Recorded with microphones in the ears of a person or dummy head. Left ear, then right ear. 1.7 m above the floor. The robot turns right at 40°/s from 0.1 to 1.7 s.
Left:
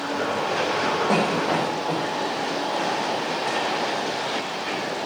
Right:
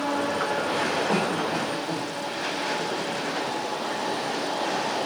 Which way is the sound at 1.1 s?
55° left (ahead or behind).